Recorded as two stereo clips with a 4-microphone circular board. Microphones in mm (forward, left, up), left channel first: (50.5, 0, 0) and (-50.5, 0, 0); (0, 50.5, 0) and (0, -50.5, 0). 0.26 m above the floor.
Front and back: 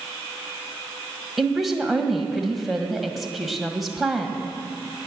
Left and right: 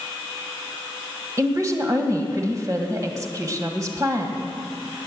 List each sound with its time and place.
1.4 s a woman speaking: 95° right, 1.8 m